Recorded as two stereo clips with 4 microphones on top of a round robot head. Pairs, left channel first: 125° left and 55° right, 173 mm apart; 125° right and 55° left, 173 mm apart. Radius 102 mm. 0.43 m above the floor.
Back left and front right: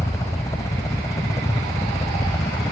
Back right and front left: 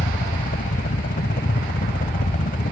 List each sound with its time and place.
0.0 s a helicopter: 160° right